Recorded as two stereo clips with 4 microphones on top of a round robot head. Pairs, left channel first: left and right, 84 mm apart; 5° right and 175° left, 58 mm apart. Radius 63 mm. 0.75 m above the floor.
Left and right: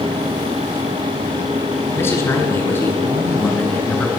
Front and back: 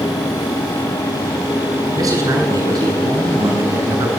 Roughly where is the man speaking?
Behind left.